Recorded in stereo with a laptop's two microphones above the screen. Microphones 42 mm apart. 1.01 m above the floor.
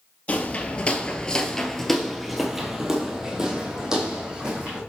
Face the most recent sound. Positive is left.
turn(degrees=-20)  # may be behind; listen again after turning